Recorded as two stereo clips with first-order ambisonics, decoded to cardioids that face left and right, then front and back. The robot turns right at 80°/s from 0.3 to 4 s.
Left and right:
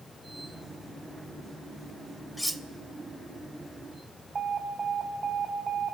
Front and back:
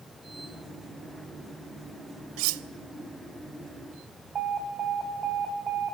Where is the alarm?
140° right, 1.5 m.